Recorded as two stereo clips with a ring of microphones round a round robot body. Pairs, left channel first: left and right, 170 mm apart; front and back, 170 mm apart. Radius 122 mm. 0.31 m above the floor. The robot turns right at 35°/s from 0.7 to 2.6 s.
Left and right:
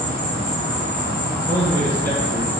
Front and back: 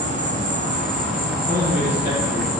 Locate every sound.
0.0 s an insect: 145° left, 0.8 m; by 2.6 s 150° right, 0.8 m
1.5 s a man speaking: 85° left, 1.9 m; by 2.6 s 125° left, 1.9 m